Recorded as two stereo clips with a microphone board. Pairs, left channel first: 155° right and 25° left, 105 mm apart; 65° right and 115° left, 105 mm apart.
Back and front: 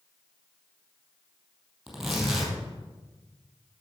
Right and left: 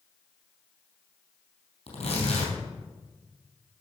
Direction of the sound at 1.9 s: 65° right.